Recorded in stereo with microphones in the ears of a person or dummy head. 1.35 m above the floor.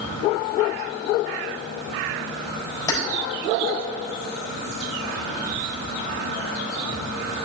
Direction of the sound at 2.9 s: 20° left (ahead or behind).